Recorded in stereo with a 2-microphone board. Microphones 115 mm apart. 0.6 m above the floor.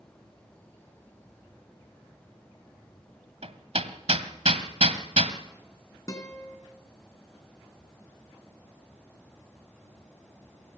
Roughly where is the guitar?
Left.